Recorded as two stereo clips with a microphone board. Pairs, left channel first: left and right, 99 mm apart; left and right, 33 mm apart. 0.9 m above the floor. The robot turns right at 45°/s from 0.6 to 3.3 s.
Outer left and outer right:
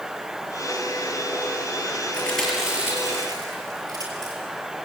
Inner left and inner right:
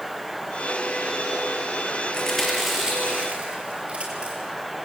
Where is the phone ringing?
No phone ringing in this recording.